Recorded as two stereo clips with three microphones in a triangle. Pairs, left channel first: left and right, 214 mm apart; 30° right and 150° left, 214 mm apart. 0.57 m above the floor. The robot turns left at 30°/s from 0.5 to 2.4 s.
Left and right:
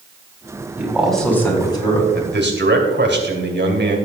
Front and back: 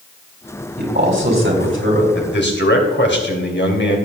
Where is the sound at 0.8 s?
170° right, 3.5 m; by 2.0 s 150° left, 3.5 m.